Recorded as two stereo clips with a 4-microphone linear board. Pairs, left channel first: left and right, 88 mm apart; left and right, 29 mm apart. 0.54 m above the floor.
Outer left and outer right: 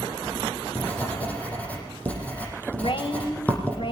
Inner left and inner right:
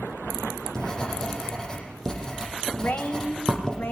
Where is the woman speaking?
70° left (ahead or behind), 3.5 m.